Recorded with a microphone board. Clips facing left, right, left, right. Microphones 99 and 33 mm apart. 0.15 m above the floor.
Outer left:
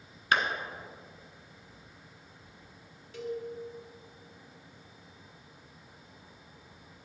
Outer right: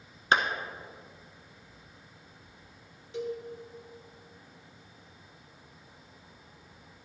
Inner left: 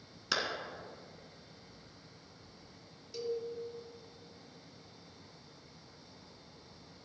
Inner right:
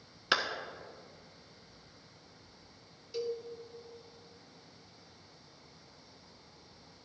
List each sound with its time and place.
0.3 s a clap: 30° right (ahead or behind), 1.0 m
3.1 s a cowbell: 20° right (ahead or behind), 1.1 m